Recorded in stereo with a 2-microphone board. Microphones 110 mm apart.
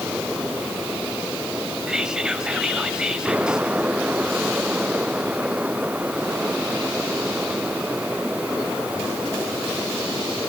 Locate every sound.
1.9 s whispering: 5° right (ahead or behind), 1.0 m